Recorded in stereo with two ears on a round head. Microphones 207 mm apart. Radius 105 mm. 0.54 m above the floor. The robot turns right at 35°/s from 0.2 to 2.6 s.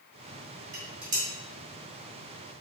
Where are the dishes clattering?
30° right (ahead or behind), 3 m; by 1.3 s 10° right (ahead or behind), 3 m.